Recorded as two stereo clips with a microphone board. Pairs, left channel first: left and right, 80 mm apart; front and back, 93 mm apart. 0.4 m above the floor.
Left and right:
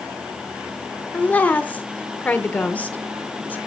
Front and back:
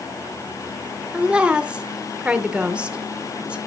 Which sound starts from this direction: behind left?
A woman speaking, at 1.1 s.